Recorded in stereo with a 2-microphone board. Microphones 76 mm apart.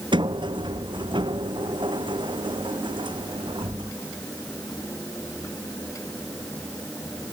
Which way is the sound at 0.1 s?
85° right.